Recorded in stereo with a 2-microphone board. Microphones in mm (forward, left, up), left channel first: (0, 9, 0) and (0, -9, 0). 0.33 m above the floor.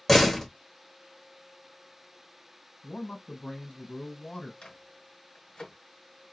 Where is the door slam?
15° left (ahead or behind), 0.9 m.